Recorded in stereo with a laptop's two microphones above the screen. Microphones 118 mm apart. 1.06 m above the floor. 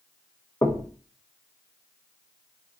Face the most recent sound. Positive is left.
turn(degrees=25)  # may be behind; listen again after turning